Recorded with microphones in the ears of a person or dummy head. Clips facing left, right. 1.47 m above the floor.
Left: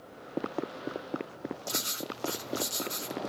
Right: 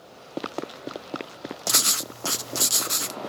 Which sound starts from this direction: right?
Writing, at 1.7 s.